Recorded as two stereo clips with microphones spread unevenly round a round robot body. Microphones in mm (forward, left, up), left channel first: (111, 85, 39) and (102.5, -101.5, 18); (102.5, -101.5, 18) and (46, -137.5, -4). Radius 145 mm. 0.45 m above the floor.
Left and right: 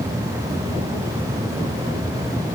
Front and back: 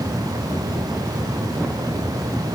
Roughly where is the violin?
No violin in this recording.